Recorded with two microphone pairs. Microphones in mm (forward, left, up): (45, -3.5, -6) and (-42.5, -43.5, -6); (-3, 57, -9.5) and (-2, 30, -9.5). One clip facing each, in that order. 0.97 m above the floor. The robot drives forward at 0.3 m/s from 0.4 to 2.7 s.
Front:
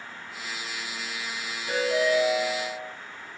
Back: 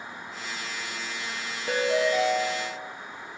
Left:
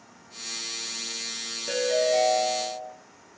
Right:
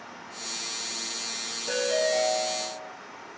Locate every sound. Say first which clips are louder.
1.7 s a ringtone: even, left 2 dB; 165° left, 0.5 m; by 2.9 s 170° left, 0.8 m